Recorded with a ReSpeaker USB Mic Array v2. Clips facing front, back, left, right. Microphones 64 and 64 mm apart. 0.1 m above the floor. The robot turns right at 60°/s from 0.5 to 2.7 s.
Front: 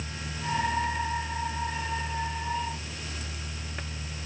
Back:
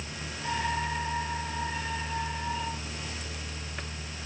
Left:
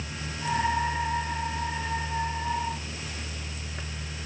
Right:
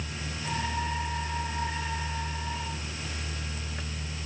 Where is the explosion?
No explosion in this recording.